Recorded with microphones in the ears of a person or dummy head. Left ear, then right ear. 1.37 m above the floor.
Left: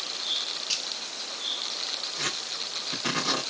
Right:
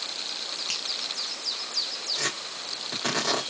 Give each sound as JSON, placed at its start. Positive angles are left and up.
{"t": 0.7, "sound": "a finger snap", "side_deg": -25, "distance_m": 1.0}
{"t": 2.1, "sound": "tearing paper", "side_deg": -35, "distance_m": 2.5}